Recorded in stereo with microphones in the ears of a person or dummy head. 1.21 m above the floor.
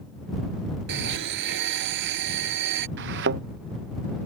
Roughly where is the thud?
Right.